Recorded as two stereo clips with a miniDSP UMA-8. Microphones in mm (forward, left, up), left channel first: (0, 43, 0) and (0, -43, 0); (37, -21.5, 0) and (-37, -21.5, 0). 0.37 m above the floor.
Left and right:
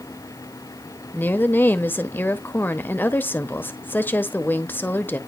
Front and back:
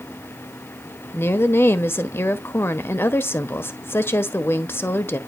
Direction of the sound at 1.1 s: 35° left.